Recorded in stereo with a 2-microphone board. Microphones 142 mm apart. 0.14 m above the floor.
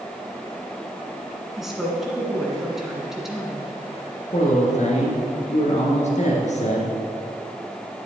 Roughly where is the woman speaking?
Centre.